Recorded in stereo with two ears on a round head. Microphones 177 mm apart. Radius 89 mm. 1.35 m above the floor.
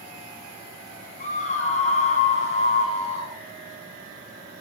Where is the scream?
40° left (ahead or behind), 9.5 m; by 3.4 s 30° left (ahead or behind), 9.5 m.